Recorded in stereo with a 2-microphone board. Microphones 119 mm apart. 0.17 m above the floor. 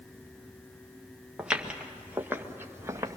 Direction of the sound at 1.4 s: 5° right (ahead or behind).